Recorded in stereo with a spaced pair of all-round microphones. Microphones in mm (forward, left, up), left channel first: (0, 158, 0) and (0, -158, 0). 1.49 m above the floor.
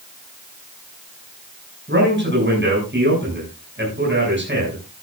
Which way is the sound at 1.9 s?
35° right (ahead or behind).